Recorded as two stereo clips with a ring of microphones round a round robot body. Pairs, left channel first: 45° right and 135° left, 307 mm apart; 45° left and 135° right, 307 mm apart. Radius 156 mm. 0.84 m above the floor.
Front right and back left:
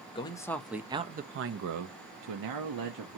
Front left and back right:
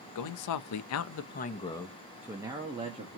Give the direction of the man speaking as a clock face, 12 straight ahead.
11 o'clock.